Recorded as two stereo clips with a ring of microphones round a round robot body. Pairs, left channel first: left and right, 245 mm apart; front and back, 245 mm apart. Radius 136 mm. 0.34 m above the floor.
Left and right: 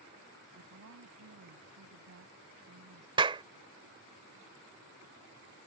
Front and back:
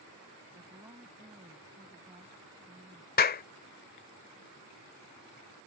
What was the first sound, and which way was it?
A woman speaking, 105° right.